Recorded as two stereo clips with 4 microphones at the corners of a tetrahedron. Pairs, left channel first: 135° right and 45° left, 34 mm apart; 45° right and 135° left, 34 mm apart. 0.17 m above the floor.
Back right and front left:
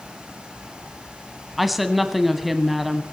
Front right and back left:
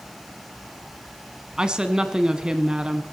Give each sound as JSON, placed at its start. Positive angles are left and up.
{"t": 1.6, "sound": "a woman speaking", "azimuth_deg": 130, "distance_m": 1.0}